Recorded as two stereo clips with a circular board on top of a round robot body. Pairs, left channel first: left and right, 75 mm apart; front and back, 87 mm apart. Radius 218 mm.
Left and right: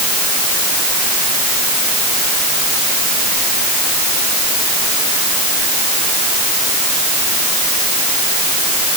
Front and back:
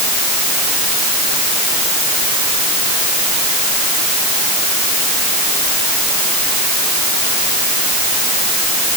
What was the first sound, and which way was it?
Only background noise.